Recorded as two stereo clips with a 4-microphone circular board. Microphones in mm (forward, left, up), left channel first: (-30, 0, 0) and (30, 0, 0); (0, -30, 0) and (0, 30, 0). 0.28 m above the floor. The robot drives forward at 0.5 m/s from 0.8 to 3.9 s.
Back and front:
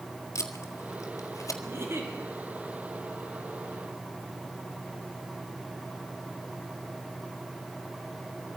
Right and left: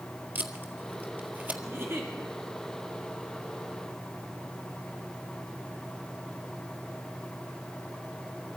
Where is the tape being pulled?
145° left, 1.8 m; by 1.6 s 150° left, 2 m.